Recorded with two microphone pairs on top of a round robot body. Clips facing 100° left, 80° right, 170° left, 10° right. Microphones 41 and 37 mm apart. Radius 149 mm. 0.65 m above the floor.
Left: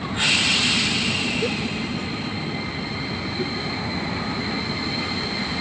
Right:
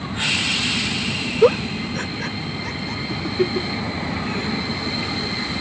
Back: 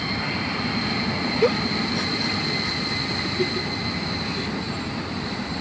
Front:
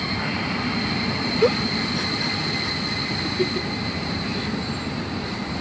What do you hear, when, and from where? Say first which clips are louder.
1.4 s a giggle: right 8 dB, front 1 dB; 100° right